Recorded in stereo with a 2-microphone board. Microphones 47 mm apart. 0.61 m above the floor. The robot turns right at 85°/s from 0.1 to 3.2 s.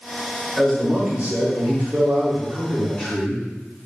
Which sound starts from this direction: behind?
A man speaking, at 0.6 s.